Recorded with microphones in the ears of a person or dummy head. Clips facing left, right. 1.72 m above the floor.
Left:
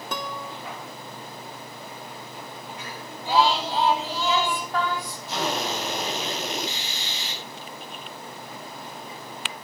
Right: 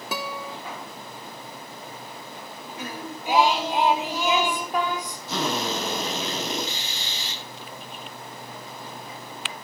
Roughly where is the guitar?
Centre.